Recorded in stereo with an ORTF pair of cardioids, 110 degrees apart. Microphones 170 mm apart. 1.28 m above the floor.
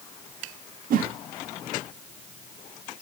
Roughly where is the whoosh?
Ahead right.